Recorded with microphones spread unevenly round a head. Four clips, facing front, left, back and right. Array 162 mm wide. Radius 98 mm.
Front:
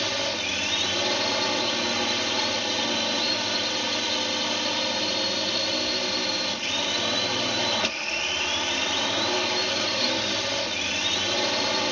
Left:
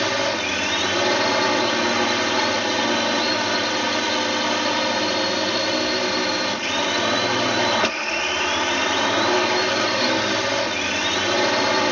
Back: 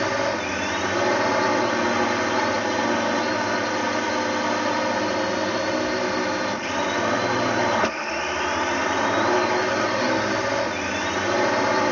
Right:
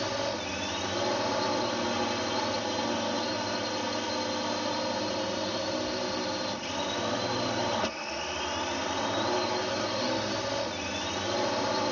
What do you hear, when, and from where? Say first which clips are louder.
0.0 s a drone: left 9 dB, back 7 dB; 120° left